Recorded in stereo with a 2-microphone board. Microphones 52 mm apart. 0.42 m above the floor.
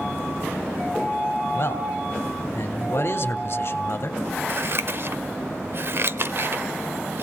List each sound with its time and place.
1.5 s a man speaking: 55° left (ahead or behind), 2.0 m
4.5 s scissors: 50° right (ahead or behind), 0.8 m